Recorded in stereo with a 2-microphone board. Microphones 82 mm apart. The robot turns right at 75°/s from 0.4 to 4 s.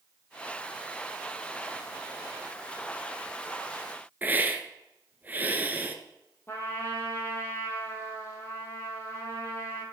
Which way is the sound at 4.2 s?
25° right (ahead or behind).